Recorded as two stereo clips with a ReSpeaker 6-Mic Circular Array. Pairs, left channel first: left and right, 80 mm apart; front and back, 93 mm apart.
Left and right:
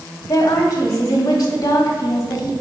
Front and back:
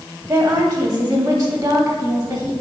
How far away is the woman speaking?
About 1.9 m.